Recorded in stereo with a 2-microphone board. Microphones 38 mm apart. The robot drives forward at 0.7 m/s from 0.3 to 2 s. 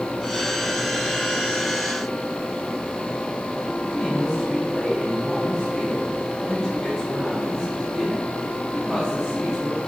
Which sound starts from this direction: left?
A woman speaking, at 3.8 s.